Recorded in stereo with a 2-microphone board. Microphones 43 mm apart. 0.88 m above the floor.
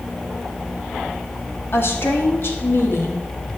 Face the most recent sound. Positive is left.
turn(degrees=65)  # may be behind; listen again after turning